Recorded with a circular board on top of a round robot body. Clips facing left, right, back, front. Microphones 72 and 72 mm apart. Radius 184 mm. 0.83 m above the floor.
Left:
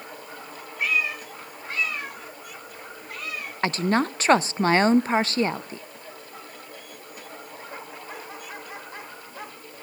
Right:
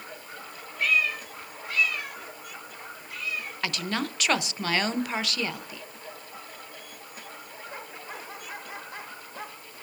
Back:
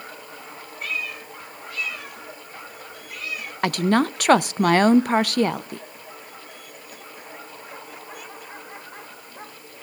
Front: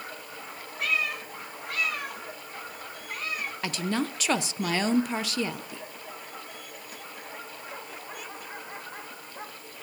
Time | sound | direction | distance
0.8 | a cat meowing | 20° left | 3.5 m
3.6 | a woman speaking | 150° left | 0.7 m